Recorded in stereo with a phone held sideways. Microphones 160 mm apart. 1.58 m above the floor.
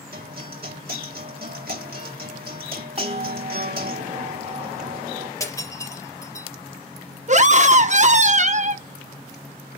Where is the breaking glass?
20° left (ahead or behind), 4 m.